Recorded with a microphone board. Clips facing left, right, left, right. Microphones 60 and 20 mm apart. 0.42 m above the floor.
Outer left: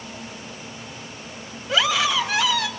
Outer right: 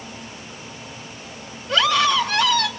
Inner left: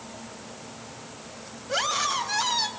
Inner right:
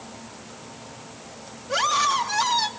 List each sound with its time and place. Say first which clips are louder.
1.7 s a scream: outer right 3 dB, inner right 4 dB; 5° left (ahead or behind), 1.9 m